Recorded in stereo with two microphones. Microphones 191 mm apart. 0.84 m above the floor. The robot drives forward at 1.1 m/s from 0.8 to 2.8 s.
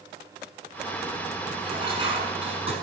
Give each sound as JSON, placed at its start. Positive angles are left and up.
{"t": 1.6, "sound": "dishes clattering", "side_deg": -25, "distance_m": 6.0}